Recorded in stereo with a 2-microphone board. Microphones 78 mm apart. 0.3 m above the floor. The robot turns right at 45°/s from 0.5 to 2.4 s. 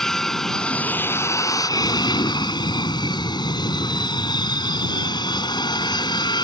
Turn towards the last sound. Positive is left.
turn(degrees=90)